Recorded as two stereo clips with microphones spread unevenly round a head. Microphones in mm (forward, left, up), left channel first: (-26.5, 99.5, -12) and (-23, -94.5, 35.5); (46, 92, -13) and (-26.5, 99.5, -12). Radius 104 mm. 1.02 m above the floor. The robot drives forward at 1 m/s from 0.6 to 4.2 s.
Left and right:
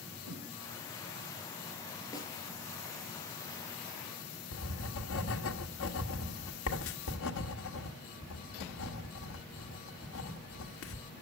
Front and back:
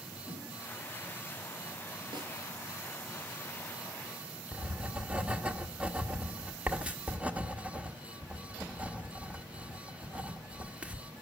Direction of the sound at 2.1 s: 165° left.